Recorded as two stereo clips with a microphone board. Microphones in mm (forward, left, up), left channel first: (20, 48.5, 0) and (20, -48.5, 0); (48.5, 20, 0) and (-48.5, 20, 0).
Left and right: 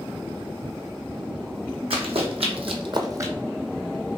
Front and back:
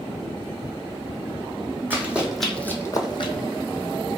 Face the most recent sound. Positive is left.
turn(degrees=-25)